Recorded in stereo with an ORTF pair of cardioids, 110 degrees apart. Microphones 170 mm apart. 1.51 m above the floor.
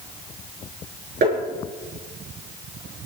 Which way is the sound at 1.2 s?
55° right.